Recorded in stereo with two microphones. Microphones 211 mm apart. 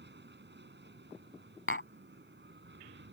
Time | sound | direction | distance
0.0 | an aircraft | 55° right (ahead or behind) | ?
1.7 | tapping | 70° left (ahead or behind) | ?